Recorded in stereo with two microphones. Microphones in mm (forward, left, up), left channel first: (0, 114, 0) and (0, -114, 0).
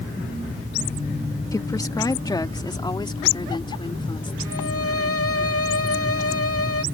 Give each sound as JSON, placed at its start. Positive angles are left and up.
{"t": 1.5, "sound": "a woman speaking", "side_deg": 15}
{"t": 4.5, "sound": "a violin", "side_deg": 80}